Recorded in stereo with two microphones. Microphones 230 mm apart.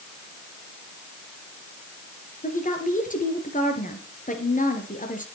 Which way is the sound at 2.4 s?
35° left (ahead or behind).